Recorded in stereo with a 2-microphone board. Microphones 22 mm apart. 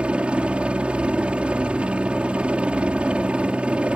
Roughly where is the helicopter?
Right.